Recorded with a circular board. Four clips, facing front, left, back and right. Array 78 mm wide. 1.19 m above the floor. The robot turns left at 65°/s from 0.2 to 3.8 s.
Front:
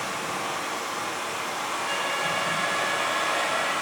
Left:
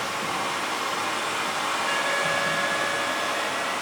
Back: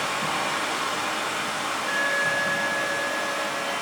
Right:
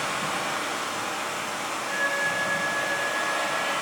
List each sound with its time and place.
0.0 s running water: 150° right, 3.5 m; by 3.8 s 25° right, 3.5 m
1.9 s an alarm: 100° left, 3 m; by 3.7 s 20° right, 3 m